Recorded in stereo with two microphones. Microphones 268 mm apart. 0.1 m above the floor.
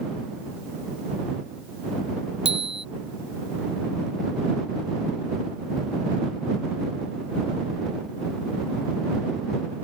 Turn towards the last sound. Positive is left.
turn(degrees=-45)  # may be behind; listen again after turning